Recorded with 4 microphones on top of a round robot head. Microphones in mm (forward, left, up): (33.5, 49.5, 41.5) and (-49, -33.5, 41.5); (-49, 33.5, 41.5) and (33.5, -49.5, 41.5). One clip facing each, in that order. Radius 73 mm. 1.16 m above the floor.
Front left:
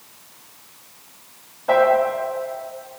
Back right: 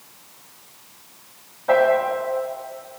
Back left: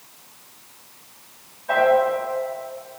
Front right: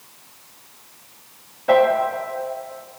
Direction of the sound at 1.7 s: 40° right.